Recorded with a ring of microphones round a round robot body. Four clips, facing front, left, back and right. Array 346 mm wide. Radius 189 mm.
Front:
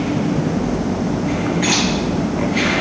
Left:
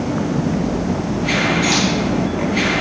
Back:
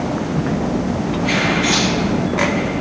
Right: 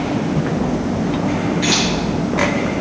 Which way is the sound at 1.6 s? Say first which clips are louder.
Even, even; 10° right.